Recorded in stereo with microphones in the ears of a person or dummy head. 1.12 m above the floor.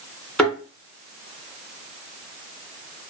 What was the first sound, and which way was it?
A thud, 5° left (ahead or behind).